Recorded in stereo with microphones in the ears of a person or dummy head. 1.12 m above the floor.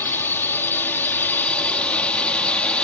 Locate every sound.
0.0 s a drone: 15° left (ahead or behind); by 2.9 s 10° left (ahead or behind)